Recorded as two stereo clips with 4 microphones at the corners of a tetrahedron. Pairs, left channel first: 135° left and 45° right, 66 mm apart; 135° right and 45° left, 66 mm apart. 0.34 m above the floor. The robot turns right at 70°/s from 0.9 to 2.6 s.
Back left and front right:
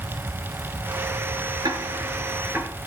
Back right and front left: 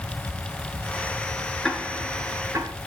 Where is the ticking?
55° right, 6 m; by 2.7 s 15° left, 6 m.